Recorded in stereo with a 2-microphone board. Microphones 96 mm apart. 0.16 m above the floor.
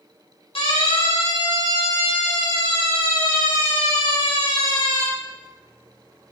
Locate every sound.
0.6 s a siren: 70° left (ahead or behind), 10 m; by 5.1 s 80° left, 14.5 m